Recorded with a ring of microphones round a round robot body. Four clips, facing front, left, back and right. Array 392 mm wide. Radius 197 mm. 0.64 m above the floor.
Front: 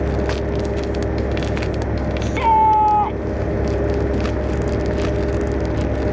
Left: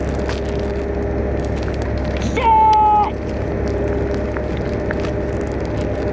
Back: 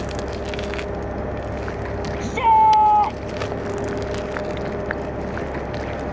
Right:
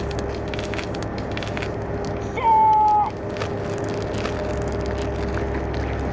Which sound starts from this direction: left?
A shout, at 2.2 s.